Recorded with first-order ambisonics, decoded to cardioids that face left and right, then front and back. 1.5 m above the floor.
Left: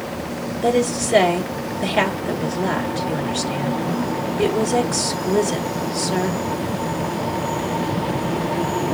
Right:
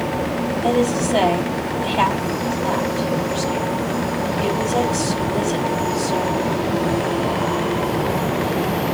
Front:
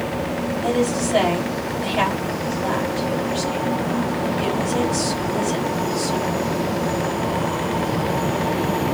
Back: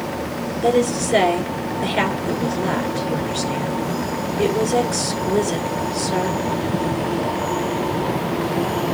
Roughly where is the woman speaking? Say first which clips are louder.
Left 1 dB, back 4 dB; behind left.